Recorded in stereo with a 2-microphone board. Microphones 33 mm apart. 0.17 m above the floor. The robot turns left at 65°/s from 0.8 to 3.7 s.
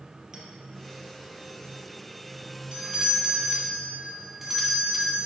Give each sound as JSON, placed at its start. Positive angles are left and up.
{"t": 0.3, "sound": "a clink", "side_deg": -15, "distance_m": 3.0}
{"t": 2.7, "sound": "a doorbell", "azimuth_deg": -105, "distance_m": 1.8}